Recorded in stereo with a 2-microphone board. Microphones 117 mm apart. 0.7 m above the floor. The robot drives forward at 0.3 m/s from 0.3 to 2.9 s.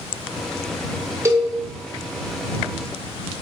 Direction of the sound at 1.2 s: 25° right (ahead or behind).